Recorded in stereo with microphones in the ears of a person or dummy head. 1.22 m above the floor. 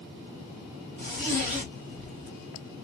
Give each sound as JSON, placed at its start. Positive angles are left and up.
{"t": 1.0, "sound": "a zipper", "side_deg": -40, "distance_m": 1.3}